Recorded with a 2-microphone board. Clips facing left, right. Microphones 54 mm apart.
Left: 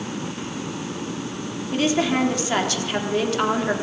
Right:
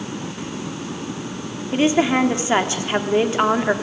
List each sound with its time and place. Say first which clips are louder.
1.7 s a woman speaking: right 4 dB; 25° right (ahead or behind), 3 m